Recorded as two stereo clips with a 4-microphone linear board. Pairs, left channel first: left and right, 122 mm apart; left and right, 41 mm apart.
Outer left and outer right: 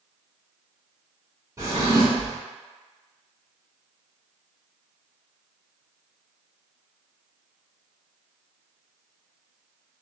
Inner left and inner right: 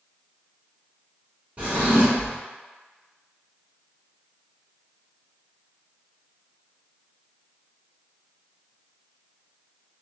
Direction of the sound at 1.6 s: 25° right (ahead or behind).